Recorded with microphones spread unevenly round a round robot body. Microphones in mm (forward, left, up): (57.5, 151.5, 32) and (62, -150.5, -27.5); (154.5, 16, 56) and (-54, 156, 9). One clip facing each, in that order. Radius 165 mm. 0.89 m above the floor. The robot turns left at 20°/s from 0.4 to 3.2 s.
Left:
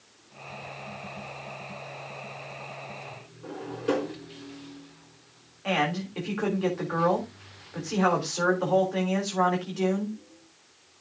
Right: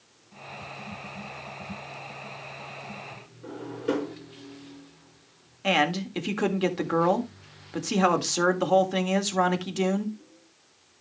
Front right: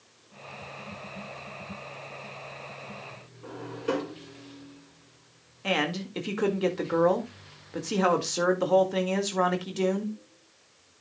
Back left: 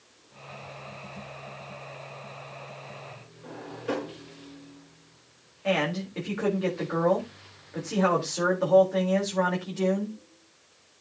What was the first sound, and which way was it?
A drawer, straight ahead.